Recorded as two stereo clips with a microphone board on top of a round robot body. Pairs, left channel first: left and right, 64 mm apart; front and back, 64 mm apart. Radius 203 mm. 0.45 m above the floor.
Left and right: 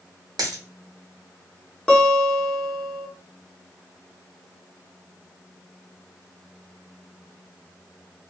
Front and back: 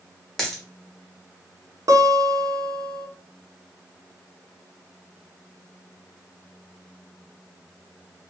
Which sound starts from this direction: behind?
A guitar, at 1.9 s.